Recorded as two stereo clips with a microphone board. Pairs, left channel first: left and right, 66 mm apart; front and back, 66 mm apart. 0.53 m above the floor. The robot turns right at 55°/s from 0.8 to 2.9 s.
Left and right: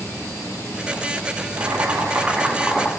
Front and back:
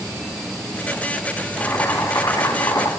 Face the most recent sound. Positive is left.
turn(degrees=10)